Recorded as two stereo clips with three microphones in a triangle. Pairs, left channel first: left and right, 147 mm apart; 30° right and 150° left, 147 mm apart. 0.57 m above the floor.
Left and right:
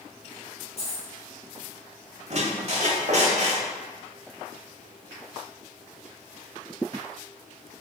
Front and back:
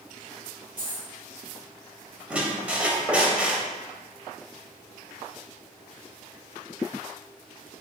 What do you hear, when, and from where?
0.8 s a dropped coin: 130° left, 1.7 m
2.3 s a squeak: 130° right, 0.8 m